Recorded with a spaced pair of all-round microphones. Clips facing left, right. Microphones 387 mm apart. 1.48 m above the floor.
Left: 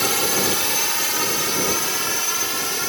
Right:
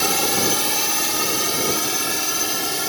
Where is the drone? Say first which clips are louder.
Right 1 dB; 55° right (ahead or behind).